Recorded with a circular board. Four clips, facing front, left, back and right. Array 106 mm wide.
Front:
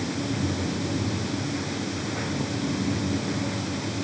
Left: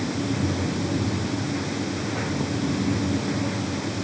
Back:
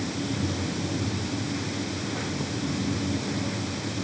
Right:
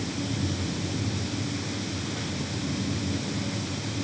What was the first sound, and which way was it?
Only background noise.